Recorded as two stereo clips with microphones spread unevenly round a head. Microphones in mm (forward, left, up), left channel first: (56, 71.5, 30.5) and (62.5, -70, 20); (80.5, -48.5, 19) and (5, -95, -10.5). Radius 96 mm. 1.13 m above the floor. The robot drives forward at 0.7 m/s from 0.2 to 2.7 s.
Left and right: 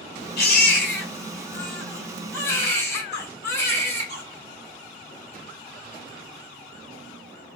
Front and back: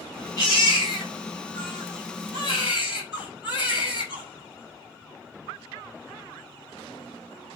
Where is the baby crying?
100° left, 3 m; by 4.2 s 125° left, 4 m.